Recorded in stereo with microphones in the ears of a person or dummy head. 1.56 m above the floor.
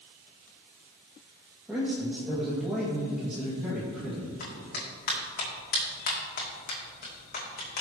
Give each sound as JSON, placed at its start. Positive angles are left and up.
{"t": 1.7, "sound": "a man speaking", "side_deg": -5, "distance_m": 2.0}
{"t": 4.4, "sound": "a clap", "side_deg": 50, "distance_m": 2.5}